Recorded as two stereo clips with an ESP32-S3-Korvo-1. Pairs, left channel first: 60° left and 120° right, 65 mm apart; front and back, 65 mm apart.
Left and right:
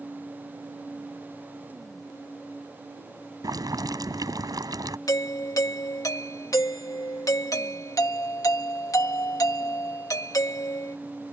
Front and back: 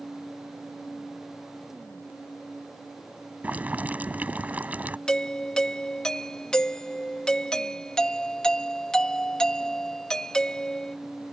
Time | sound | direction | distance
3.4 | boiling | 115° right | ?
5.1 | a doorbell | 75° left | ?